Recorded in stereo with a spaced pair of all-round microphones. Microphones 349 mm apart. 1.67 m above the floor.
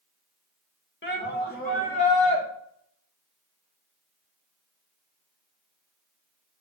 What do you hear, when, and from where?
1.0 s a shout: 30° left (ahead or behind), 1.9 m; by 2.4 s 20° left (ahead or behind), 3 m